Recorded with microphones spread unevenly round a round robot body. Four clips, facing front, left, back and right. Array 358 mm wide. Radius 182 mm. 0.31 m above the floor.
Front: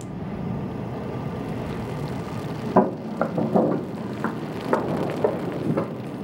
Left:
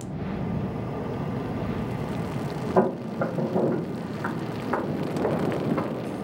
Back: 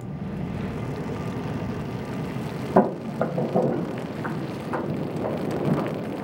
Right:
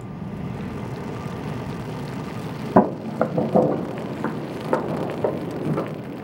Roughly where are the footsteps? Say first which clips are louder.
Right 5 dB, even; right.